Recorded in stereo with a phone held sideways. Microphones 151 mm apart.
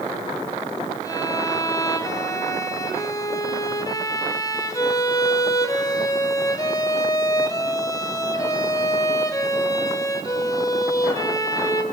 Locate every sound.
1.0 s a violin: 25° left (ahead or behind), 2 m